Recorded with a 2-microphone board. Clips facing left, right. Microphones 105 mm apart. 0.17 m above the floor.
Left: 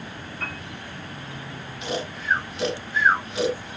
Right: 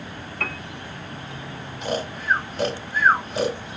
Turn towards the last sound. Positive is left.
turn(degrees=-40)  # may be behind; listen again after turning